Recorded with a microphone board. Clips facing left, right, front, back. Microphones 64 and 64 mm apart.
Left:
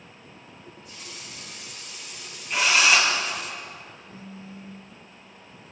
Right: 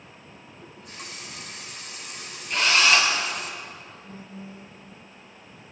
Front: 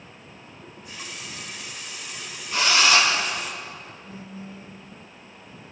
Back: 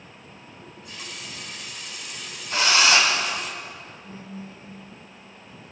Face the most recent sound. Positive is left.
turn(degrees=-140)